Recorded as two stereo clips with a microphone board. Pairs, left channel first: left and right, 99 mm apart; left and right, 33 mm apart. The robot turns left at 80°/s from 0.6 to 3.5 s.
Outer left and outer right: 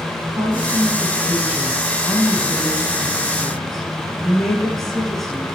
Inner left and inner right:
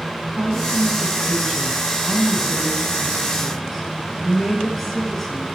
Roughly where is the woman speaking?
Behind right.